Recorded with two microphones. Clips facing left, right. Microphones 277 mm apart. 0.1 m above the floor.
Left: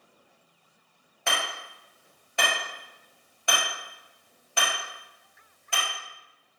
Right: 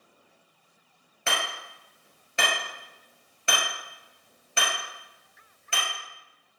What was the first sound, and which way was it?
Hammering, 20° right (ahead or behind).